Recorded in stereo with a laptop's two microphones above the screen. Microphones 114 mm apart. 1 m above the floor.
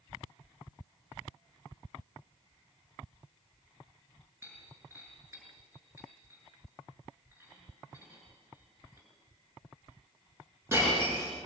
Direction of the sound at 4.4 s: 20° right (ahead or behind).